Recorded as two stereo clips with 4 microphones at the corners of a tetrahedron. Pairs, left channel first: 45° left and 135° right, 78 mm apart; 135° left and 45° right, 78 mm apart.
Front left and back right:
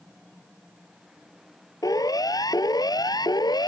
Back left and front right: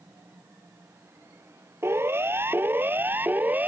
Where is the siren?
10° left; by 3.7 s 20° left.